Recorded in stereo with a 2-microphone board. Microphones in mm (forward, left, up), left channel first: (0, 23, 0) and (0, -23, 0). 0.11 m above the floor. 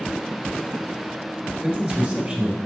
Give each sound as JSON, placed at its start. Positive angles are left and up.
{"t": 1.6, "sound": "a man speaking", "side_deg": -15, "distance_m": 1.4}